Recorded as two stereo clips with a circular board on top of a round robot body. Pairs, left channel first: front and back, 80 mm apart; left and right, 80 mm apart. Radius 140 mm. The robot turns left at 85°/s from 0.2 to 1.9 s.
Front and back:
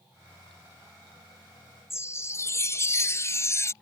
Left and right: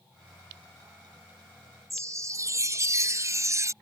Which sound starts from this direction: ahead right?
A chime, at 1.9 s.